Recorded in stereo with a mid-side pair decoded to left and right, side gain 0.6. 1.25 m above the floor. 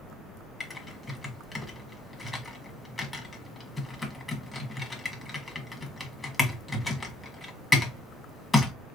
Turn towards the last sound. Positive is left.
turn(degrees=15)